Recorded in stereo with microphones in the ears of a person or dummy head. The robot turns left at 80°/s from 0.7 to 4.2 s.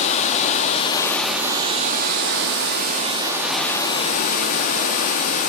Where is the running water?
45° left, 1.7 m; by 5.5 s 125° left, 1.7 m.